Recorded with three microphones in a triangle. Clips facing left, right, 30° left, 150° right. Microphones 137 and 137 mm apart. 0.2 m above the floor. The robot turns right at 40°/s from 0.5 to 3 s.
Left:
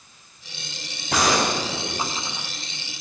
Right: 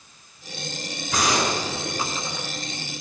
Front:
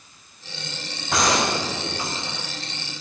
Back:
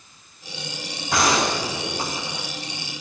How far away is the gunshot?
About 8 m.